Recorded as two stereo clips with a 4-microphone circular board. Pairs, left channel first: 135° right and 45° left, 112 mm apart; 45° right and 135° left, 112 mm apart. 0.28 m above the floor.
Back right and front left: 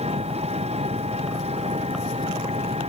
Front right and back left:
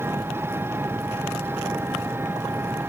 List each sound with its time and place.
0.0 s an engine running: 65° left